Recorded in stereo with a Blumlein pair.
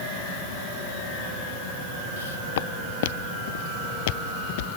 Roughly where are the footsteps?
Ahead left.